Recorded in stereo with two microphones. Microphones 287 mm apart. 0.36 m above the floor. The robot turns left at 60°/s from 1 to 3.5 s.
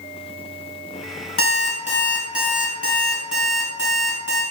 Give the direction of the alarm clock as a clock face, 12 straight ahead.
10 o'clock.